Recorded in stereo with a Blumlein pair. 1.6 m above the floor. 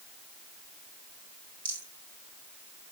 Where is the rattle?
65° right, 2 m.